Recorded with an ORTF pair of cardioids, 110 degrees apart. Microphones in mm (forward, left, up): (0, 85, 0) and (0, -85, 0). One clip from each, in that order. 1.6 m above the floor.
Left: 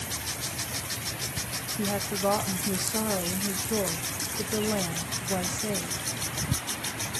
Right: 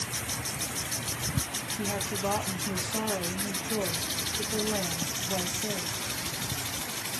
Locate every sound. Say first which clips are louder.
1.8 s a woman speaking: left 4 dB; 15° left, 1.8 m